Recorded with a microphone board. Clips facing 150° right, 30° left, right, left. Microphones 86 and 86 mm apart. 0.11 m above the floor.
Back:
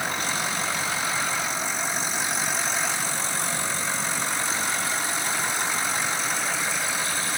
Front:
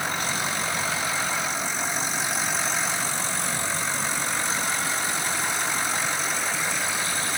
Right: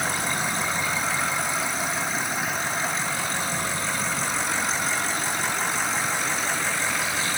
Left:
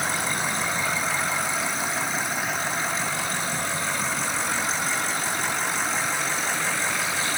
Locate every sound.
Only background noise.